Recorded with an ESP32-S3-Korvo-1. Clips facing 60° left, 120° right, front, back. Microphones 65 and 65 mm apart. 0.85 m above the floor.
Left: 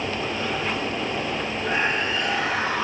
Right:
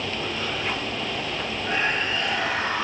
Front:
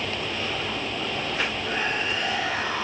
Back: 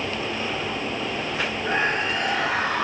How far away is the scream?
About 8 m.